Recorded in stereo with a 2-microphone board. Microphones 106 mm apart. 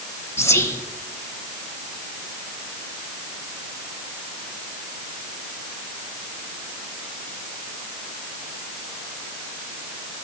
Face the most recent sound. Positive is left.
turn(degrees=25)  # may be behind; listen again after turning